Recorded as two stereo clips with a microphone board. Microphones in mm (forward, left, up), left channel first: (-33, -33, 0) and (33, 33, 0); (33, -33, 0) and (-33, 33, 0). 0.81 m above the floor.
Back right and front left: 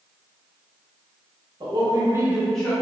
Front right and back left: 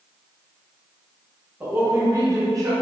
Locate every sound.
1.6 s a woman speaking: 65° left, 1.0 m; by 2.7 s 165° left, 0.7 m